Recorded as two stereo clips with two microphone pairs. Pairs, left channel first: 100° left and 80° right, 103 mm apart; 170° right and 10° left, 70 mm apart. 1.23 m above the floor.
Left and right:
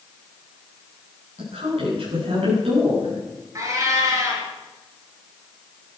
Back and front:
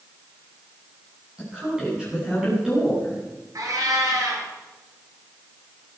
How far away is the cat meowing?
About 5 m.